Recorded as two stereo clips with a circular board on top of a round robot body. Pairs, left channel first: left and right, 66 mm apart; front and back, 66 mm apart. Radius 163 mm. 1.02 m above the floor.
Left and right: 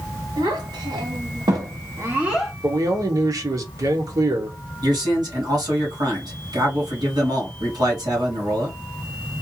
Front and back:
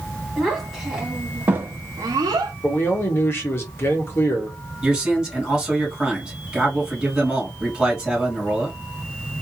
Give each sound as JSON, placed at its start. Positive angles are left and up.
{"t": 0.4, "sound": "a child speaking", "azimuth_deg": -90, "distance_m": 1.8}
{"t": 2.6, "sound": "a man speaking", "azimuth_deg": -55, "distance_m": 1.4}
{"t": 4.8, "sound": "a man speaking", "azimuth_deg": -100, "distance_m": 2.5}